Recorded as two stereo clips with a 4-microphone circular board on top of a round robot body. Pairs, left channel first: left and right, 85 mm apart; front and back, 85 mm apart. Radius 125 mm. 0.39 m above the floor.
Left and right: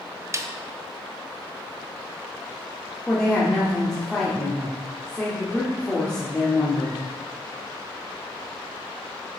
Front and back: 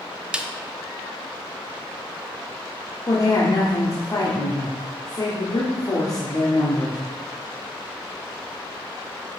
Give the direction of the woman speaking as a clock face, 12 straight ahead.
12 o'clock.